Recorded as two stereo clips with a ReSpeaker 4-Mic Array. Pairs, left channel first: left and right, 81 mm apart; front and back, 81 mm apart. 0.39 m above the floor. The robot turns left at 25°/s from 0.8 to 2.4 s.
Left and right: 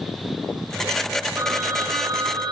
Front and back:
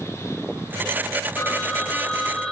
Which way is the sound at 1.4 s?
50° right.